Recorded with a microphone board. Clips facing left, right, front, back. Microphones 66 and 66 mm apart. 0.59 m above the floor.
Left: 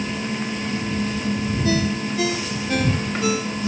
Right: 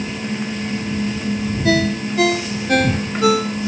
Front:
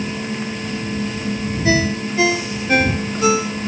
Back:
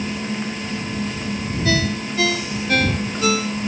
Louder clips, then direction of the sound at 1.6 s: Right 6 dB, front 4 dB; 70° right.